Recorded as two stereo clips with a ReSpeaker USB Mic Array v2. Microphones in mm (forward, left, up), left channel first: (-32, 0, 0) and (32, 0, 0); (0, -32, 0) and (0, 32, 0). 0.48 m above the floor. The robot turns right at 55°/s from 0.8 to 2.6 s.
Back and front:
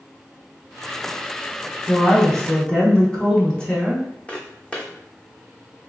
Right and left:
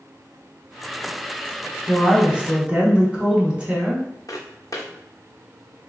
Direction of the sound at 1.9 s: 90° left.